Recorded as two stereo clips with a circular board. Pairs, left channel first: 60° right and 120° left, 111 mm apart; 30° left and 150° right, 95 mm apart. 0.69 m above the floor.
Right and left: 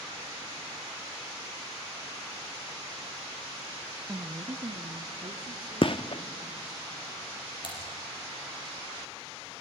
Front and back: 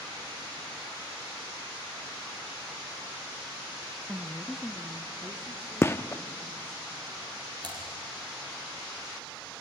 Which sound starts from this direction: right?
Typing on a keyboard, at 7.6 s.